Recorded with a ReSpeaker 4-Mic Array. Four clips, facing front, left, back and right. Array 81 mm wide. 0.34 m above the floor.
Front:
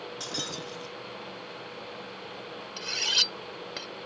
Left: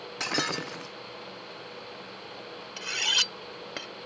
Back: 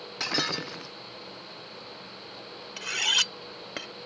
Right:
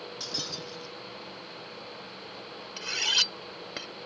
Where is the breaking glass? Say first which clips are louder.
Left 8 dB, back 10 dB; 120° left.